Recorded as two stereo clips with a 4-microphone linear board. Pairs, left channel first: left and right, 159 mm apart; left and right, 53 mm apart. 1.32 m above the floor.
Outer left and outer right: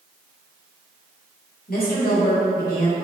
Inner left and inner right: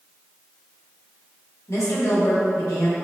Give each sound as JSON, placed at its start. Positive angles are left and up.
{"t": 1.7, "sound": "a woman speaking", "side_deg": 70, "distance_m": 1.0}